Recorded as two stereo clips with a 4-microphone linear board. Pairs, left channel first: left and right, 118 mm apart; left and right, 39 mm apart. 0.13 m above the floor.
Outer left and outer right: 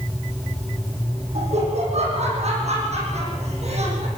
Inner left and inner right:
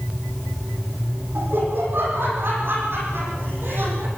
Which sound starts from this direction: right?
Laughter, at 1.4 s.